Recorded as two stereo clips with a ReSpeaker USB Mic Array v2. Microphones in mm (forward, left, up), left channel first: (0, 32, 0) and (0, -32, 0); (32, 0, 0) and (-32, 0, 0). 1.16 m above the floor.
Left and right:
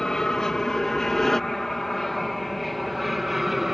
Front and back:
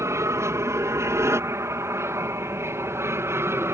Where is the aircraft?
170° left; by 3.7 s 175° right.